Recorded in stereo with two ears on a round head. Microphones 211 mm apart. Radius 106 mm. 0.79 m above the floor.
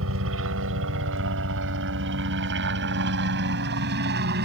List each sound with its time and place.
0.0 s a helicopter: 60° right (ahead or behind); by 4.5 s 45° right (ahead or behind)